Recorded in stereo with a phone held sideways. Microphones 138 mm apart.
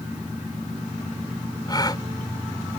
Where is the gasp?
30° left (ahead or behind).